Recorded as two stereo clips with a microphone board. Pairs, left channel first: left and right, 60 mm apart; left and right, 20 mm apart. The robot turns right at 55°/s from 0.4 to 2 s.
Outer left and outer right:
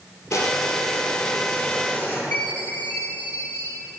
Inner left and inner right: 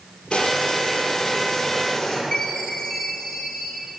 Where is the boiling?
60° left, 2 m; by 2.2 s 150° left, 2 m.